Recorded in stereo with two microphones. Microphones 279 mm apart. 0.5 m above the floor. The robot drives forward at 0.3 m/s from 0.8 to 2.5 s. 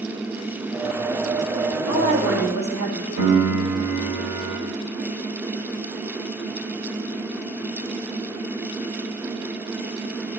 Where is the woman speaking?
70° right (ahead or behind), 2 m.